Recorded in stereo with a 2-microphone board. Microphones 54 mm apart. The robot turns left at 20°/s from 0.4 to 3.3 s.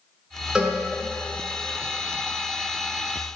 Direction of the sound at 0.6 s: 15° right (ahead or behind).